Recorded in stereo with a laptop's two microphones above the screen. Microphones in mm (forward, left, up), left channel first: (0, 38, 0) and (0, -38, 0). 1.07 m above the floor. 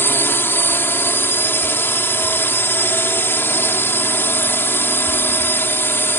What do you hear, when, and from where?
0.0 s a drone: 30° left (ahead or behind)